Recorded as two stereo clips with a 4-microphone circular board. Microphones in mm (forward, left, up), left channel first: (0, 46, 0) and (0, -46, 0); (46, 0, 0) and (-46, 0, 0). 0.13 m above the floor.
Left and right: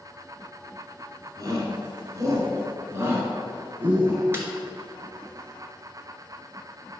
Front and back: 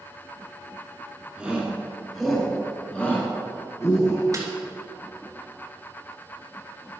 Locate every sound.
1.4 s a shout: 105° right, 1.9 m; by 4.2 s 30° right, 1.8 m
4.3 s a snare drum: 145° right, 1.5 m